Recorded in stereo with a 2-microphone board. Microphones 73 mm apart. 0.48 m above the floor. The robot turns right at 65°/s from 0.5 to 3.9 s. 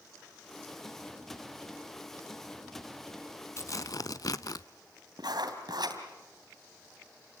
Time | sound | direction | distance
3.6 | tearing paper | 45° left (ahead or behind) | 0.6 m
5.2 | writing | 75° right (ahead or behind) | 3 m